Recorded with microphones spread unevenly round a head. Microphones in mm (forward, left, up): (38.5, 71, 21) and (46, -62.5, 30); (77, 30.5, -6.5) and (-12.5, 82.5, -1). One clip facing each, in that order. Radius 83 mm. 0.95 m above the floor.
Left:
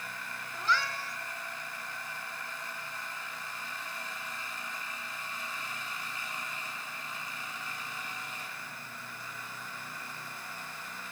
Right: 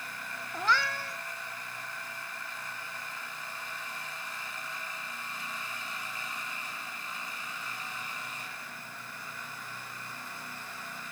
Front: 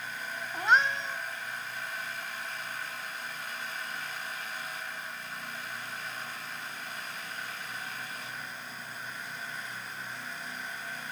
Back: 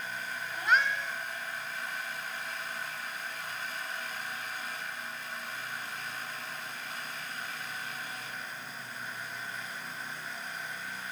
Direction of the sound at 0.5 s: 95° right.